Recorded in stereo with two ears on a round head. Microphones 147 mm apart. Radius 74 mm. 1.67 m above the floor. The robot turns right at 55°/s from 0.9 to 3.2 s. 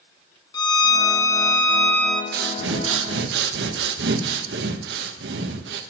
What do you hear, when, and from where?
0.5 s a violin: 25° left (ahead or behind), 0.8 m; by 2.2 s 5° left (ahead or behind), 0.8 m
2.3 s breathing: 120° right, 0.9 m; by 5.8 s 70° right, 0.9 m